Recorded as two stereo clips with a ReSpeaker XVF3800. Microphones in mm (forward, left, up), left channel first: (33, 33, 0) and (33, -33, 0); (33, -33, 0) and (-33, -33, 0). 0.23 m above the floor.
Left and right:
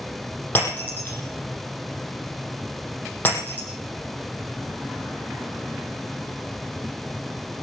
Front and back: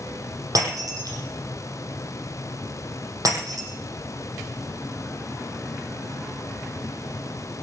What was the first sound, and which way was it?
Breaking glass, 150° left.